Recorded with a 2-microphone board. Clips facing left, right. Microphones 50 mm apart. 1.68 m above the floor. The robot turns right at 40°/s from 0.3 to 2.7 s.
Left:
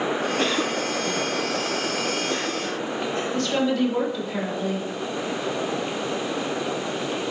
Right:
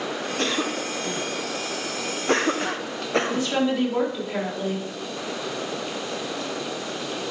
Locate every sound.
0.4 s a cough: 10° left (ahead or behind), 1.1 m; by 3.5 s 80° right, 1.1 m
3.3 s a woman speaking: 20° right (ahead or behind), 3.5 m